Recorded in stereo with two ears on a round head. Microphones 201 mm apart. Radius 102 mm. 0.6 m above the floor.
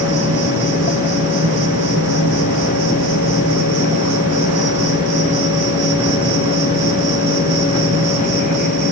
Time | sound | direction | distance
0.0 | an insect | 70° right (ahead or behind) | 8.5 m